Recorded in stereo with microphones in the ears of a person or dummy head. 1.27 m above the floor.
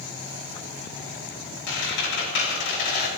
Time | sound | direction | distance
1.7 | a squeak | 60° left (ahead or behind) | 4 m